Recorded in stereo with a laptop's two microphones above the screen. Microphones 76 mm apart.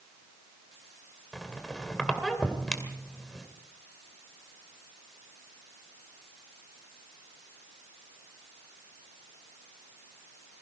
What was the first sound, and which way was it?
A squeak, 5° left (ahead or behind).